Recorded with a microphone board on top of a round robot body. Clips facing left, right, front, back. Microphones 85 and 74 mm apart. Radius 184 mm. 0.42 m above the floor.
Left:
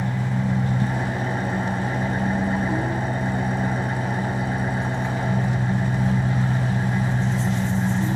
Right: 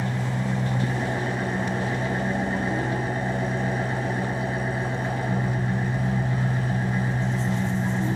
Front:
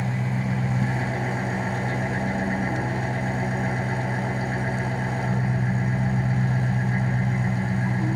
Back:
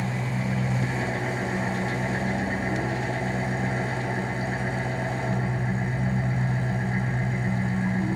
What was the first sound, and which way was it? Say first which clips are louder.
An engine running: left 2 dB, front 1 dB; 75° left.